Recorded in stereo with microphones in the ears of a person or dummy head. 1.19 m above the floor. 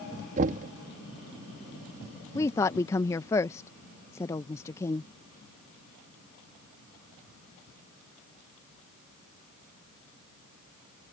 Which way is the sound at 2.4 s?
15° left (ahead or behind).